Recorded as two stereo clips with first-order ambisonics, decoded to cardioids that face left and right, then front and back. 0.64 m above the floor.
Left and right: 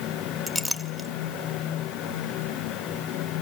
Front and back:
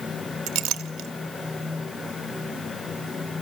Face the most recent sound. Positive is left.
turn(degrees=-175)